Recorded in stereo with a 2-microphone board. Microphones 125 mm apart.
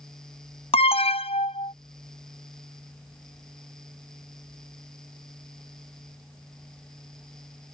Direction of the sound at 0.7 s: 50° left (ahead or behind).